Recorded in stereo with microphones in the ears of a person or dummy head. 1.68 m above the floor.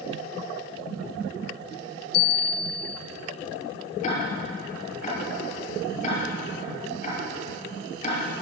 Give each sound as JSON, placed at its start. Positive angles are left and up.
{"t": 2.1, "sound": "a bell", "side_deg": 60, "distance_m": 1.2}
{"t": 4.0, "sound": "ticking", "side_deg": 45, "distance_m": 8.5}